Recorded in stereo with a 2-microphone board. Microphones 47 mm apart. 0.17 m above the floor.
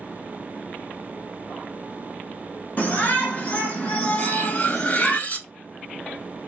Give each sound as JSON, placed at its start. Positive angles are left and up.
{"t": 2.8, "sound": "a shout", "side_deg": 40, "distance_m": 2.0}
{"t": 4.2, "sound": "cutlery clinking", "side_deg": 35, "distance_m": 0.6}